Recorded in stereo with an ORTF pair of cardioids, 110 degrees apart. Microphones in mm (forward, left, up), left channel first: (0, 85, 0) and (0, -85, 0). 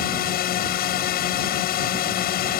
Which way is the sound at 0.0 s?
70° left.